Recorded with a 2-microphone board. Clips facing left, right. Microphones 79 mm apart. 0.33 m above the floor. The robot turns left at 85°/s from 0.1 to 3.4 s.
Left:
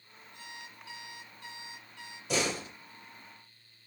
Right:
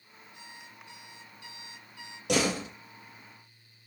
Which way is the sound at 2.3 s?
65° right.